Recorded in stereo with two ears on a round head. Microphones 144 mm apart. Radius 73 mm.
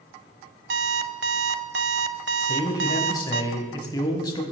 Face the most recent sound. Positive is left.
turn(degrees=25)  # may be behind; listen again after turning